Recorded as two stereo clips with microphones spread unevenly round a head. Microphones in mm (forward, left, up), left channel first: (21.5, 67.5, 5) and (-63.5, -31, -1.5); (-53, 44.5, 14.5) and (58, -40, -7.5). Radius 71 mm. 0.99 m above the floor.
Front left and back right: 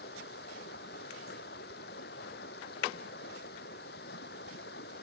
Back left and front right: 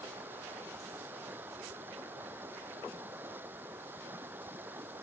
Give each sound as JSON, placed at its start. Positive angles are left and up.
{"t": 0.0, "sound": "running water", "azimuth_deg": 40}